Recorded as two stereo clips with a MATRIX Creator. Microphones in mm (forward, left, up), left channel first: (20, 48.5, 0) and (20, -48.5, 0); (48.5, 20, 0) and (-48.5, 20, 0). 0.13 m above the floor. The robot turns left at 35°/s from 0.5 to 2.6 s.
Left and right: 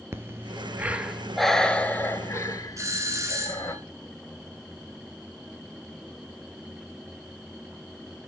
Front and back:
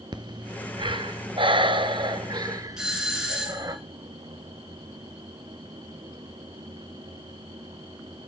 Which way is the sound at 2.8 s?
100° right.